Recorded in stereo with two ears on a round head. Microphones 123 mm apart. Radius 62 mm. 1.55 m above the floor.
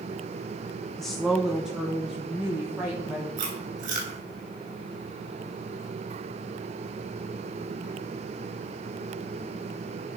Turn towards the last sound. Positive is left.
turn(degrees=-65)  # may be behind; listen again after turning